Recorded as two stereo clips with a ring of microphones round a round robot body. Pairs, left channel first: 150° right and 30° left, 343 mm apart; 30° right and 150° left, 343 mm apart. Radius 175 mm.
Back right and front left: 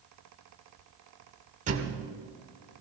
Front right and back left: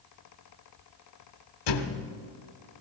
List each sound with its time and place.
1.7 s a thud: 40° right, 1.4 m